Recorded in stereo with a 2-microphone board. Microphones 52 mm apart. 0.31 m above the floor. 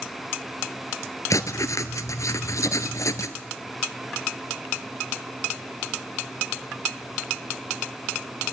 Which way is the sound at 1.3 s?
75° left (ahead or behind).